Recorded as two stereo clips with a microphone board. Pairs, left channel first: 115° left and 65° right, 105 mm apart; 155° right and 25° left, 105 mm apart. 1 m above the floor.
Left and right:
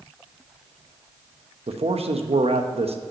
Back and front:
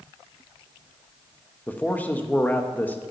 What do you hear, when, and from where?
1.7 s a man speaking: 85° right, 0.8 m